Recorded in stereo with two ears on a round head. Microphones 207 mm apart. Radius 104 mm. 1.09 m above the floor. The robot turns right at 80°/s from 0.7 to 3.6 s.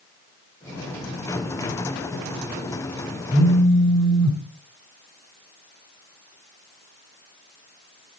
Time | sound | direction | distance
3.3 | a phone buzzing | 35° left (ahead or behind) | 5.5 m